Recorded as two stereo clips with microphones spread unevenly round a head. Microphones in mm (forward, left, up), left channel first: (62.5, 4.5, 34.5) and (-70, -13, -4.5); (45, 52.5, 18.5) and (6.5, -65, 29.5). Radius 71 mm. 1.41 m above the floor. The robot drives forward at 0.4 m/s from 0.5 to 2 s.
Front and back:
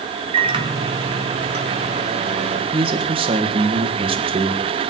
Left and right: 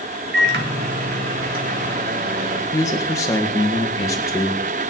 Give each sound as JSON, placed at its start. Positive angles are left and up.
{"t": 0.3, "sound": "a microwave", "azimuth_deg": -120, "distance_m": 1.9}
{"t": 2.7, "sound": "a man speaking", "azimuth_deg": 140, "distance_m": 1.9}